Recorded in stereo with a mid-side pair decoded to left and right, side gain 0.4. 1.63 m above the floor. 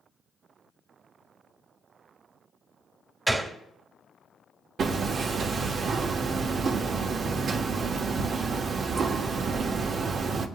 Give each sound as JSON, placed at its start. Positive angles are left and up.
{"t": 3.3, "sound": "a gunshot", "azimuth_deg": -15, "distance_m": 2.0}
{"t": 4.8, "sound": "hammering", "azimuth_deg": -55, "distance_m": 1.3}